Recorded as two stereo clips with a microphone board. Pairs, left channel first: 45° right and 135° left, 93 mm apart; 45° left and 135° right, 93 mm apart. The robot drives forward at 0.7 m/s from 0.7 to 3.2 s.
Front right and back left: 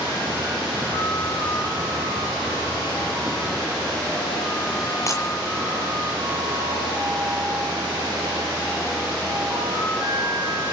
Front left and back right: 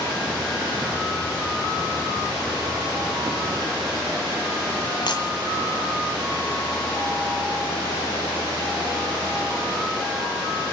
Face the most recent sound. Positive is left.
turn(degrees=10)